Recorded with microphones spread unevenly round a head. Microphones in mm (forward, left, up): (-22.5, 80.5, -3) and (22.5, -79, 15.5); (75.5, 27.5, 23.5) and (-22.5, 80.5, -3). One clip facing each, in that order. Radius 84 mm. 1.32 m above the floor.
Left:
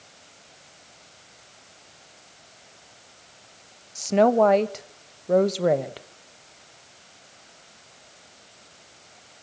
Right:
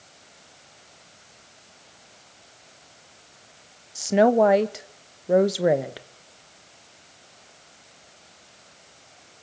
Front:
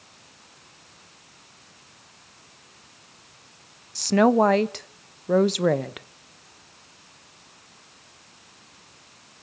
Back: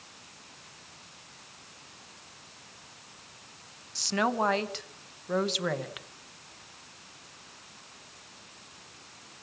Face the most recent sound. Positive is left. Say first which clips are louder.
# right 1 dB, front 10 dB
turn(degrees=5)